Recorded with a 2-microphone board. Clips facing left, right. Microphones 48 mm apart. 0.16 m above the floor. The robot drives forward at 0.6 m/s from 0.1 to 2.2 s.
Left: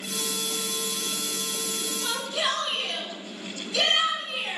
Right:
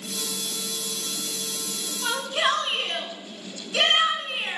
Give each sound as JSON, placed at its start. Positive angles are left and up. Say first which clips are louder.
{"t": 2.0, "sound": "a shout", "louder": "right 5 dB", "side_deg": -35, "distance_m": 1.5}